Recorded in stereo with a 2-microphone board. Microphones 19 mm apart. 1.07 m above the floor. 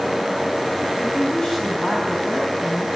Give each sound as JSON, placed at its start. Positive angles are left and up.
{"t": 1.0, "sound": "a woman speaking", "side_deg": 35, "distance_m": 8.0}